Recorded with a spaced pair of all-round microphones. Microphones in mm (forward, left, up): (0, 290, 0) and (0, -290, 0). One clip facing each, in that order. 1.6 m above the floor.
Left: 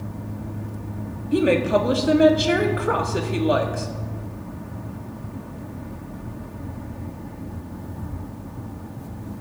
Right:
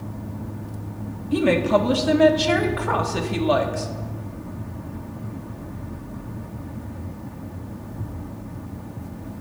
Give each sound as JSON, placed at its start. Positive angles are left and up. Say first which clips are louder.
{"t": 1.3, "sound": "a woman speaking", "louder": "even", "side_deg": -25, "distance_m": 0.7}